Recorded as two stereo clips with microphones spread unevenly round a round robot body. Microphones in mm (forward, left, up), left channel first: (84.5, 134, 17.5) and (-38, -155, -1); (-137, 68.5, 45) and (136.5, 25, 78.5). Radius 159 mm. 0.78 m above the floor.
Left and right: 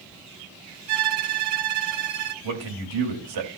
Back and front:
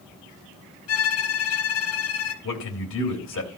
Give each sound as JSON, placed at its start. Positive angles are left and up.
{"t": 0.9, "sound": "a violin", "azimuth_deg": -150, "distance_m": 1.1}
{"t": 2.4, "sound": "a man speaking", "azimuth_deg": -140, "distance_m": 3.0}